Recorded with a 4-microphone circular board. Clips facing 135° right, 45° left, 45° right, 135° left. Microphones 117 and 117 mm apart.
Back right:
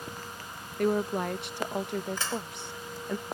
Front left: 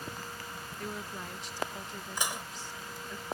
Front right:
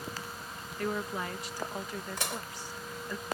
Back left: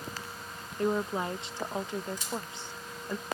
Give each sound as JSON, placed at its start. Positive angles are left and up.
{"t": 0.8, "sound": "a woman speaking", "azimuth_deg": -160}
{"t": 2.2, "sound": "dishes clattering", "azimuth_deg": -30}